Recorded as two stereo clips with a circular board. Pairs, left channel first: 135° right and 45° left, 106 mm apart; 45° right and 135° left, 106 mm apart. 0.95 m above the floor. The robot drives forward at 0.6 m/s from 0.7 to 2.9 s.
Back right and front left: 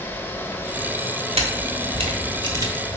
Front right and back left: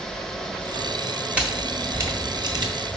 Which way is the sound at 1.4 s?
55° left.